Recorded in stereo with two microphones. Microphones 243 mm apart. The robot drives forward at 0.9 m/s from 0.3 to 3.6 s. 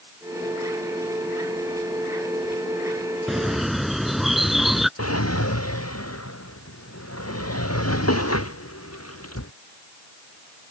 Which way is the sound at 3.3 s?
Centre (ahead or behind).